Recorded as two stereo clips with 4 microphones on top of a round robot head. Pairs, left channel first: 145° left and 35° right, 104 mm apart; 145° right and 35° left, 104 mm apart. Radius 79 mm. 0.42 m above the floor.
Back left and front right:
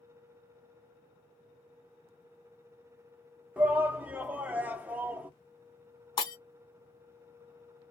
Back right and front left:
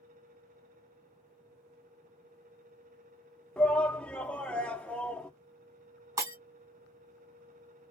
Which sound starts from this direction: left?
Breaking glass, at 6.2 s.